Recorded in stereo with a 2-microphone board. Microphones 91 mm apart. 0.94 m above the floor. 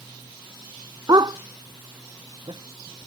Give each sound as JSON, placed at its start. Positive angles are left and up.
{"t": 1.1, "sound": "a dog barking", "side_deg": -45}